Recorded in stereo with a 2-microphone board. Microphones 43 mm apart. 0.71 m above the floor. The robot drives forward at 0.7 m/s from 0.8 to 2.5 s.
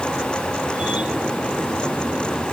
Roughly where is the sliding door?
I don't hear a sliding door.